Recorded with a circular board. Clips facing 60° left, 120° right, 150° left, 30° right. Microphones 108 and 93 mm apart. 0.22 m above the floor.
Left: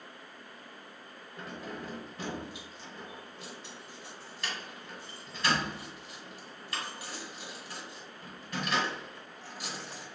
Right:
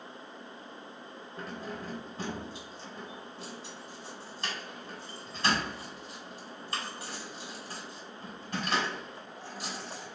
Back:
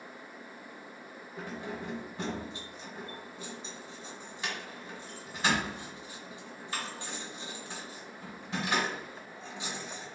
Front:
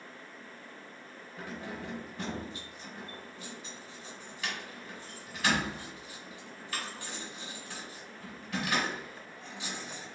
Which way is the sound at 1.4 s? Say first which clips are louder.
Right 1 dB, back 2 dB; 160° right.